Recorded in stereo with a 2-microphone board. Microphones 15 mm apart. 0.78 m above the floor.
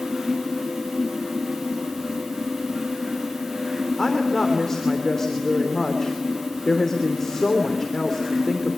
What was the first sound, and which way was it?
A woman speaking, 35° left (ahead or behind).